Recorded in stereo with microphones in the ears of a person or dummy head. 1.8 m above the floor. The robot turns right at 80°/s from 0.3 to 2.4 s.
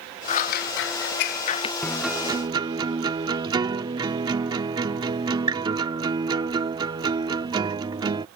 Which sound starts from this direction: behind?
A guitar, at 1.8 s.